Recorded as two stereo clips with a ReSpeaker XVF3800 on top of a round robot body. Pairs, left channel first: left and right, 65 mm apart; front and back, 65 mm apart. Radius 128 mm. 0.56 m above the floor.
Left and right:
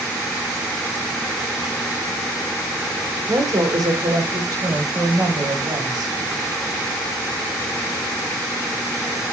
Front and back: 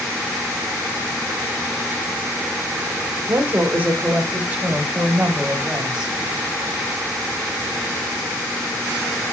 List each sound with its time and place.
3.3 s a woman speaking: 125° right, 2.5 m; by 6.2 s 100° right, 4 m